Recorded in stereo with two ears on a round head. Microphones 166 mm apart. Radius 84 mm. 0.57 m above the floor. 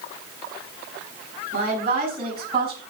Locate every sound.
1.5 s a woman speaking: 35° right (ahead or behind), 5 m; by 2.8 s 30° right (ahead or behind), 5 m